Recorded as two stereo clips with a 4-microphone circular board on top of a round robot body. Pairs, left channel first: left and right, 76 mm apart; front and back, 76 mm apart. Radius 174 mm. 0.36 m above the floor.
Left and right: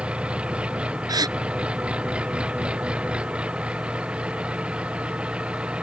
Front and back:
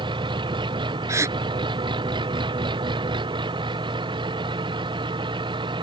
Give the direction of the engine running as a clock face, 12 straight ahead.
6 o'clock.